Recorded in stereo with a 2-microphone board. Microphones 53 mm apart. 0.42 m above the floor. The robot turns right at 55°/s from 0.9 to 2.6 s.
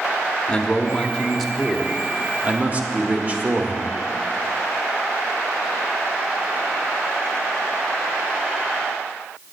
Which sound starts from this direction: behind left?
A man speaking, at 0.5 s.